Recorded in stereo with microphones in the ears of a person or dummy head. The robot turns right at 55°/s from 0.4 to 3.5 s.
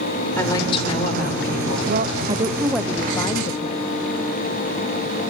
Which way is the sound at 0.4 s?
15° left.